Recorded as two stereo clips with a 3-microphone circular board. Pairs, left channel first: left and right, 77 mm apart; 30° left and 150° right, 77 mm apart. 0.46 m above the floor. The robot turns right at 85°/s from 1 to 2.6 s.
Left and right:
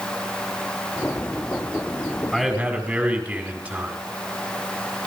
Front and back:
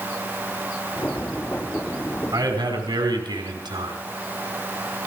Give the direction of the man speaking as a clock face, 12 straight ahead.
6 o'clock.